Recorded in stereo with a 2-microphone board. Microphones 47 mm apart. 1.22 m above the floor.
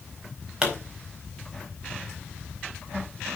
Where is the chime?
I don't hear a chime.